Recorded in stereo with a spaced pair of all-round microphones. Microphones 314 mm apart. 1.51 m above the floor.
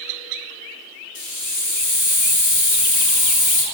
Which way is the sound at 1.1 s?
65° left (ahead or behind).